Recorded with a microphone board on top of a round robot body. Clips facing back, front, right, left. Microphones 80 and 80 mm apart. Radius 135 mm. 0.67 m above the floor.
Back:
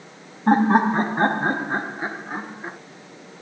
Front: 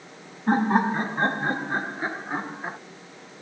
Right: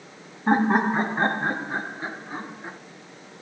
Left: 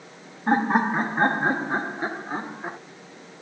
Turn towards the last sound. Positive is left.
turn(degrees=80)